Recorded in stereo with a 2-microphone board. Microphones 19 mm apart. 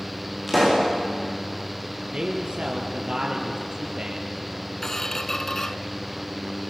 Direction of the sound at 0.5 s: Centre (ahead or behind).